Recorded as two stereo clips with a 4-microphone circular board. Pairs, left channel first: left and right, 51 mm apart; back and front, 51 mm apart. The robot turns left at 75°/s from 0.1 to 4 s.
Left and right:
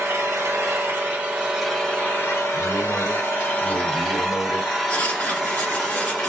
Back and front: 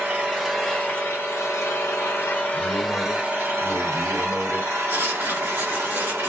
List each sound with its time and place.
0.0 s an engine running: 60° right, 1.2 m; by 6.3 s 5° left, 1.2 m
2.5 s a man speaking: 165° right, 1.1 m; by 4.7 s 85° left, 1.1 m
4.9 s writing: 35° left, 1.4 m